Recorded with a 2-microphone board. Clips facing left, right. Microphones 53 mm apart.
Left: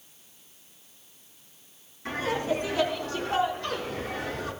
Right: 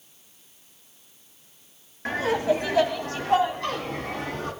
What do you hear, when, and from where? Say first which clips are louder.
2.0 s laughter: right 5 dB; 75° right (ahead or behind), 2.5 m; by 4.5 s 60° right (ahead or behind), 4 m